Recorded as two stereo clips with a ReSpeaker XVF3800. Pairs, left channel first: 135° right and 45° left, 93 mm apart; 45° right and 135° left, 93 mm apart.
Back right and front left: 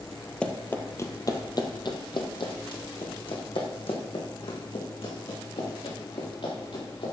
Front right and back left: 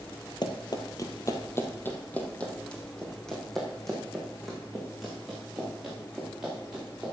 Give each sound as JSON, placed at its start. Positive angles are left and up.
{"t": 0.4, "sound": "running footsteps", "azimuth_deg": -60, "distance_m": 1.3}